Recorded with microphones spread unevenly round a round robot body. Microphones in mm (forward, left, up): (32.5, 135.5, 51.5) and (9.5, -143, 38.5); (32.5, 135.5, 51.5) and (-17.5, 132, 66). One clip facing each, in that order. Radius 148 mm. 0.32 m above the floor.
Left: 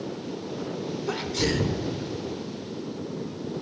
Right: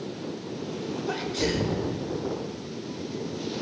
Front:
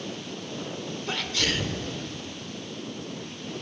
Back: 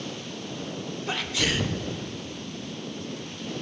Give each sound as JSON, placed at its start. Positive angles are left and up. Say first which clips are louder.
{"t": 1.1, "sound": "a sneeze", "louder": "left 1 dB, back 1 dB", "azimuth_deg": 70, "distance_m": 0.9}